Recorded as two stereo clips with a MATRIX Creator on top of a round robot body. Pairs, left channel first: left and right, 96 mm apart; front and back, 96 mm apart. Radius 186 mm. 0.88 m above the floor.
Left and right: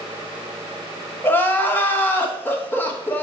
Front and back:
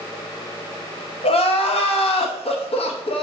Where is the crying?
20° left, 1.0 m.